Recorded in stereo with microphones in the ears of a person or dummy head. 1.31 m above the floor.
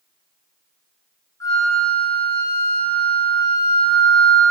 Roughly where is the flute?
Centre.